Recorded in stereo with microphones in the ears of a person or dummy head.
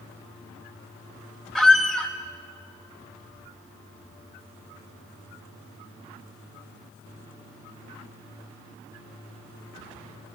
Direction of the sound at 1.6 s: Centre (ahead or behind).